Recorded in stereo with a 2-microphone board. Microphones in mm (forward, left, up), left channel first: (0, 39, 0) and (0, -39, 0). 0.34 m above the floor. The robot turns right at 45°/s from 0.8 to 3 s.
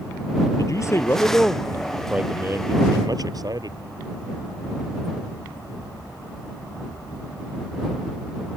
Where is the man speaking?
140° left; by 3.8 s 125° right.